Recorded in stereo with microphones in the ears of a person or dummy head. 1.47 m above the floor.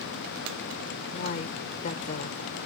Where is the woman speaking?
45° left (ahead or behind).